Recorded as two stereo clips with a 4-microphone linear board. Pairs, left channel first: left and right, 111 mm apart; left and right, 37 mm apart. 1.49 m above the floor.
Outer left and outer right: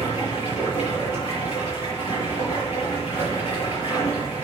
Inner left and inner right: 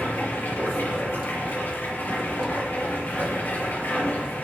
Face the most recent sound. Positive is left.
turn(degrees=75)  # may be behind; listen again after turning